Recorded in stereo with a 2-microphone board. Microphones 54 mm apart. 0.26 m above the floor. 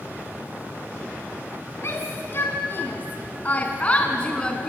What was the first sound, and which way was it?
A shout, 50° left (ahead or behind).